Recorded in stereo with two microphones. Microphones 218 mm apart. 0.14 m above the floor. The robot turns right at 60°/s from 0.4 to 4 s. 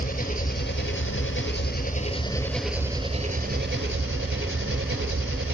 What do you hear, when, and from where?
0.0 s an engine running: 45° left, 1.0 m; by 5.5 s 100° right, 1.0 m